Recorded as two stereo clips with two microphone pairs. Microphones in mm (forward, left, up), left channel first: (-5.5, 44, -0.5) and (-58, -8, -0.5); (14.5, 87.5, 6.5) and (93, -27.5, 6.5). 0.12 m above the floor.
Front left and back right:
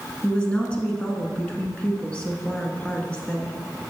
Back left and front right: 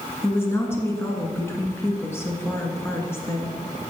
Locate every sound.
0.2 s a woman speaking: 90° left, 1.2 m